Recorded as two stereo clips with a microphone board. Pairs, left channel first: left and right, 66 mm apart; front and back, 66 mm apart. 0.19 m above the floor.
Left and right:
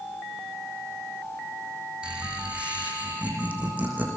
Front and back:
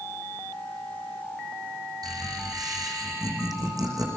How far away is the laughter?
About 9 m.